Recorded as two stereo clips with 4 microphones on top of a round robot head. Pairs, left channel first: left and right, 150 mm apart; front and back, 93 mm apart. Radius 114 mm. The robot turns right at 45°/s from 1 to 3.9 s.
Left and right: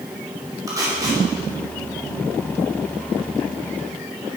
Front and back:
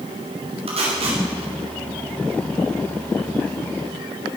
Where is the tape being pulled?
160° right, 2.5 m; by 1.2 s 150° right, 2.5 m.